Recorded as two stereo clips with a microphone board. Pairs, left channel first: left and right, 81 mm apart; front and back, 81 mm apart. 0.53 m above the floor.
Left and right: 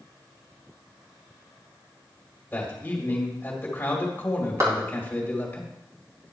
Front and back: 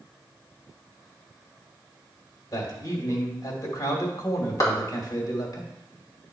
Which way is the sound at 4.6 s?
45° right.